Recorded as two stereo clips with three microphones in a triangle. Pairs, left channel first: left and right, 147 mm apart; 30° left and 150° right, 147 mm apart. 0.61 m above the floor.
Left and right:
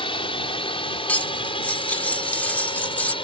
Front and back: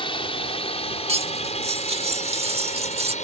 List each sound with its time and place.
0.0 s a drone: 60° left; by 3.2 s 45° left
1.1 s cutlery clinking: 170° left